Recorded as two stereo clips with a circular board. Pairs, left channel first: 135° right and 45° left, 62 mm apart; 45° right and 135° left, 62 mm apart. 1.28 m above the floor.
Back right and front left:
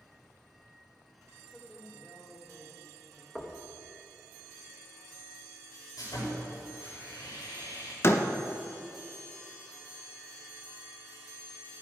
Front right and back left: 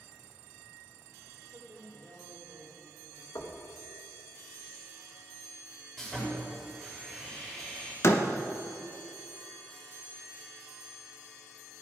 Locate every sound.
1.3 s a woman speaking: 130° left, 3 m
3.4 s knocking: 45° right, 1.4 m
6.0 s sawing: 125° right, 6 m
8.0 s a door slam: 85° right, 0.9 m